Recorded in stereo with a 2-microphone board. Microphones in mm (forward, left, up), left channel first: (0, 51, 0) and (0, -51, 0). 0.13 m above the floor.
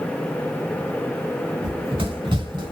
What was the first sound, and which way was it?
Running footsteps, 55° right (ahead or behind).